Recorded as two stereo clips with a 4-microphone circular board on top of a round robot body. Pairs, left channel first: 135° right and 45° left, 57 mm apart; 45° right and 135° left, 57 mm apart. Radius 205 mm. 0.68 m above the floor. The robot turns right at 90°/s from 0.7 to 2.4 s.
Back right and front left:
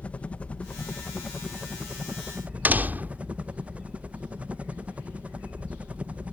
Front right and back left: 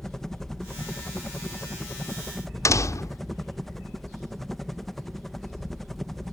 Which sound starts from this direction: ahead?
A door slam, at 2.6 s.